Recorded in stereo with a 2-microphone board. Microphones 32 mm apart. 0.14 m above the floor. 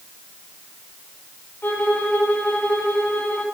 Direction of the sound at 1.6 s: 85° left.